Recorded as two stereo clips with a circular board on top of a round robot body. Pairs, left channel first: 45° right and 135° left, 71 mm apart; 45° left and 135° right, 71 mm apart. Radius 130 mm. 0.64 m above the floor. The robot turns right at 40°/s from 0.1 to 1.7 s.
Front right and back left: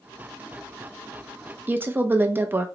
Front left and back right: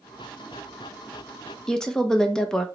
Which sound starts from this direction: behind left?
A woman speaking, at 1.7 s.